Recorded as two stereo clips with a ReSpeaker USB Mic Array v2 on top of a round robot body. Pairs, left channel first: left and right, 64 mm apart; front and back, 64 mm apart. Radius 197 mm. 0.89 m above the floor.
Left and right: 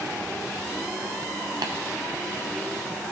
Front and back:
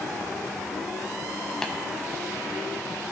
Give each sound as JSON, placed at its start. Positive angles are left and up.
{"t": 1.6, "sound": "tapping", "azimuth_deg": -85, "distance_m": 0.5}